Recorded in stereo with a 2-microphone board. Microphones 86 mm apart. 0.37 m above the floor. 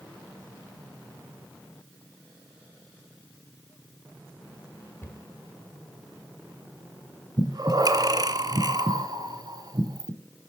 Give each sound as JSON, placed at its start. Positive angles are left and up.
{"t": 5.0, "sound": "a cupboard door", "side_deg": 25, "distance_m": 1.2}
{"t": 7.4, "sound": "breathing", "side_deg": -50, "distance_m": 0.7}